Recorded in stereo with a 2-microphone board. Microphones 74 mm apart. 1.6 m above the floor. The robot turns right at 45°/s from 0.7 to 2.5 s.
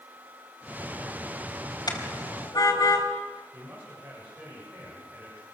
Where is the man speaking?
25° right (ahead or behind), 8.5 m.